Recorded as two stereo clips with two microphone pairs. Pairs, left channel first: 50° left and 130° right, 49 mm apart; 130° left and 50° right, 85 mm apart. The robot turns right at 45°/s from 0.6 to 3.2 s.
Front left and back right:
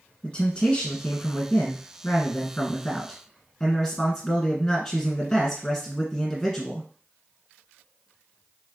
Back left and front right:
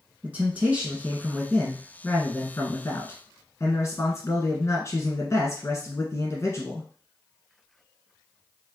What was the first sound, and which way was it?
A man speaking, 5° left.